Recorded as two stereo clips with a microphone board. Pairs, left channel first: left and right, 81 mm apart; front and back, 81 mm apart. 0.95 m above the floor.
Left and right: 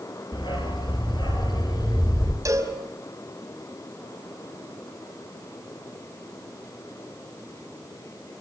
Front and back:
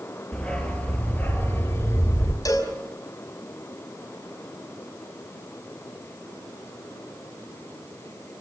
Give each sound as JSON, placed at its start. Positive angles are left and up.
{"t": 0.3, "sound": "a dog barking", "azimuth_deg": 80, "distance_m": 5.0}
{"t": 2.5, "sound": "a cowbell", "azimuth_deg": -40, "distance_m": 5.0}